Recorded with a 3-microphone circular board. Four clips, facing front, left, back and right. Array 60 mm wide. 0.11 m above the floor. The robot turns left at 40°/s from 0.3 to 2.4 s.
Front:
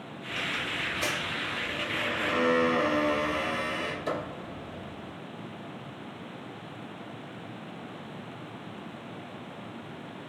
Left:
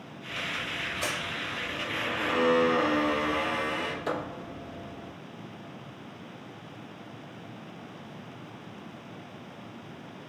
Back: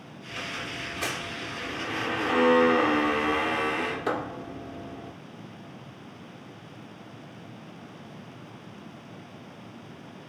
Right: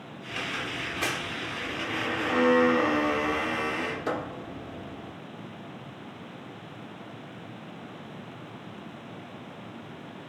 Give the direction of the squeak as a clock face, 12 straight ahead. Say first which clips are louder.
Right 1 dB, front 3 dB; 3 o'clock.